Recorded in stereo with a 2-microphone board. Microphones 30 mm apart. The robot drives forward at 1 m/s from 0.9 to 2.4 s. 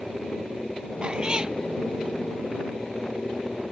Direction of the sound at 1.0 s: 35° right (ahead or behind).